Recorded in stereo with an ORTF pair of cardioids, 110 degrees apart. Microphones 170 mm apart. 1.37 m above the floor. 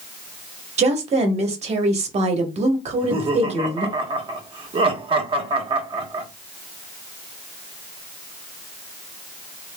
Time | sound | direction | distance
0.8 | a woman speaking | 40° right | 1.3 m
2.9 | laughter | 35° right | 1.2 m